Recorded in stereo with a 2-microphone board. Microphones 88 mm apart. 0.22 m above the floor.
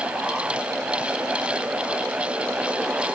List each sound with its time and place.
Only background noise.